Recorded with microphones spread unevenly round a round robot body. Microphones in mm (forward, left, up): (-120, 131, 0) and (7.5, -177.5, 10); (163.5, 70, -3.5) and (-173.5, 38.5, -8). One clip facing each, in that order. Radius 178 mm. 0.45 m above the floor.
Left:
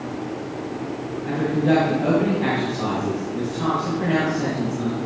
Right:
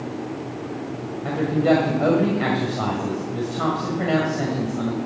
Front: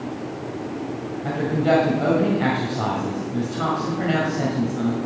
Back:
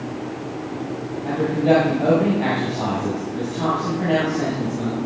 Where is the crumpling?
I don't hear crumpling.